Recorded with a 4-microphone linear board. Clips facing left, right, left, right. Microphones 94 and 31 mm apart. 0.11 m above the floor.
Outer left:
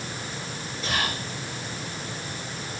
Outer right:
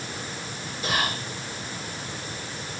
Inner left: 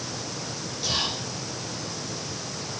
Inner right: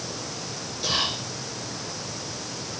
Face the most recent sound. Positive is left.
turn(degrees=-5)  # may be behind; listen again after turning